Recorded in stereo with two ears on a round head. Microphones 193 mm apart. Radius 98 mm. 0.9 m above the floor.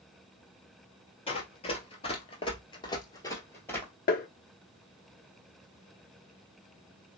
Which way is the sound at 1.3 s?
25° left (ahead or behind).